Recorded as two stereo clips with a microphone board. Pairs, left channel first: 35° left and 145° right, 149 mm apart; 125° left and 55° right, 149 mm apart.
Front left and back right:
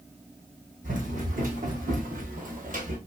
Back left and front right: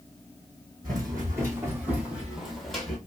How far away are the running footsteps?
About 2 m.